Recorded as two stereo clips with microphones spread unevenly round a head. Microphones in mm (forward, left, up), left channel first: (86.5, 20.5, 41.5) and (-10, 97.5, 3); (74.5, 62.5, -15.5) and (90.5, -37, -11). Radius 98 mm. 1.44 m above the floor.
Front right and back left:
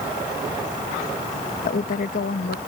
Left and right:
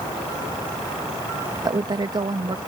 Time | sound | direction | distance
1.6 | a woman speaking | 35° right | ?